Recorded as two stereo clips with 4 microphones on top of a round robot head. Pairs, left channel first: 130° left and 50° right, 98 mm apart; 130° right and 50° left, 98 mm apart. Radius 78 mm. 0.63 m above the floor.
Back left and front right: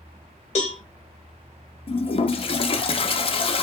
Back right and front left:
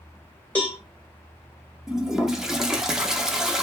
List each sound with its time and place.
0.6 s a cowbell: 155° left, 0.7 m
1.9 s a toilet flushing: 135° left, 0.5 m